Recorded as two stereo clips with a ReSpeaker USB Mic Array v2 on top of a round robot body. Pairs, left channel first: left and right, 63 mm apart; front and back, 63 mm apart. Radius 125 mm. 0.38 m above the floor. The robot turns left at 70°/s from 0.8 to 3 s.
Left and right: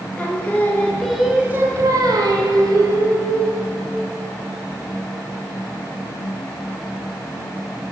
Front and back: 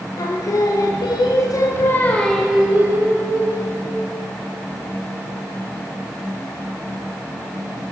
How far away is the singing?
About 0.6 m.